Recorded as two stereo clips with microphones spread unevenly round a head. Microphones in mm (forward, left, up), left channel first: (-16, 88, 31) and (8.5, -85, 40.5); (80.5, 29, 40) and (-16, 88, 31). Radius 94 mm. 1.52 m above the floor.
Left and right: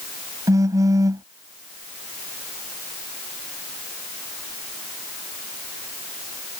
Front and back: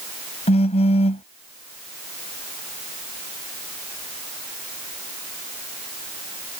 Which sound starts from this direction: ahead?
A phone buzzing, at 0.5 s.